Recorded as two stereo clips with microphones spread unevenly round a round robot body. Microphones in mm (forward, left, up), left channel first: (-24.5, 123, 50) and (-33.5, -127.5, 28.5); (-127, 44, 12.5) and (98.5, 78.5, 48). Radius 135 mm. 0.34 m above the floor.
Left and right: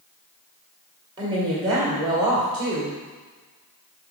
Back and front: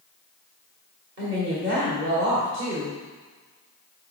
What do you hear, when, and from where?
1.2 s a woman speaking: 30° right, 1.9 m